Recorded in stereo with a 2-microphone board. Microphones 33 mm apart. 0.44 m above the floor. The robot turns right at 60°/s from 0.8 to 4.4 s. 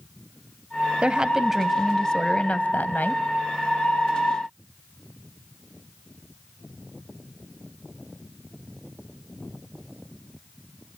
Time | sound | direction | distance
1.0 | a woman speaking | 45° right | 2 m